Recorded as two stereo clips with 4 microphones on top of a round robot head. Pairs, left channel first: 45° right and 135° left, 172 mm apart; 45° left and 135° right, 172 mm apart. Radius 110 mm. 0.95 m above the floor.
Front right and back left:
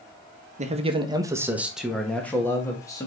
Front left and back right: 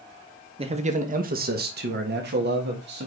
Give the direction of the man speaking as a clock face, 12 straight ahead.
6 o'clock.